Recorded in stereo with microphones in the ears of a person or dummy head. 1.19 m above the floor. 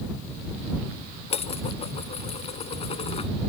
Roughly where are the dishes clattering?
Left.